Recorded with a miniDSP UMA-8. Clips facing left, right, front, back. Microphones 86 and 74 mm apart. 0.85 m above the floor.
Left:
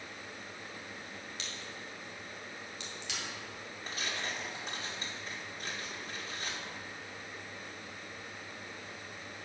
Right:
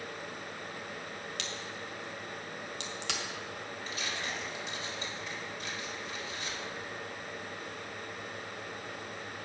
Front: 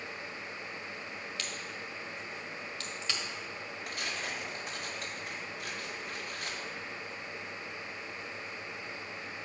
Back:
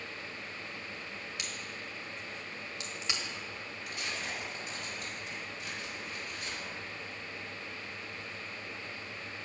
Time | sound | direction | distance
1.4 | a crack | 105° right | 1.2 m
3.9 | tearing paper | 35° left | 1.8 m